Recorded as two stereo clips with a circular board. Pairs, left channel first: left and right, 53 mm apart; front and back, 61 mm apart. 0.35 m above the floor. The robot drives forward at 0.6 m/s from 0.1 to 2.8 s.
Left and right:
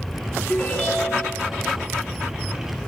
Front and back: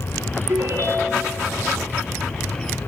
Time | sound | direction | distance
0.5 | a ringtone | 155° left | 1.1 m